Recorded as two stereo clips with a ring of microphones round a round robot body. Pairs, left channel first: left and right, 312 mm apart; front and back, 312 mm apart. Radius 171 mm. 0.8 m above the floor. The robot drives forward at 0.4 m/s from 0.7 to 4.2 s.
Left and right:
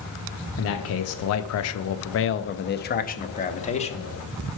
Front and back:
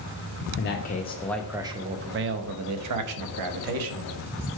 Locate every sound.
0.6 s a man speaking: 50° left, 0.6 m; by 4.1 s 160° left, 1.2 m